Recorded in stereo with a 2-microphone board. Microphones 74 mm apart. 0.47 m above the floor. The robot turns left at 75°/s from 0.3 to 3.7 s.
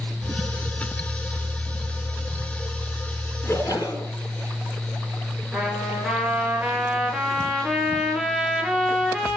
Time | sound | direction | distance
3.4 | a splash | 35° left (ahead or behind) | 7.5 m
5.5 | a trumpet | 10° right (ahead or behind) | 4 m